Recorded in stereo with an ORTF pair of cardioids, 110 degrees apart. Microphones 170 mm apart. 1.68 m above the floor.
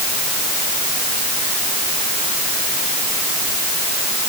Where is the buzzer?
No buzzer in this recording.